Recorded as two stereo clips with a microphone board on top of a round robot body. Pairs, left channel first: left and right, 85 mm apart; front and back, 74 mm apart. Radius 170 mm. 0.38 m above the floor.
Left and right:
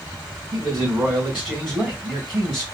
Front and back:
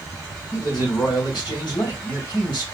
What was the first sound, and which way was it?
A man speaking, 5° right.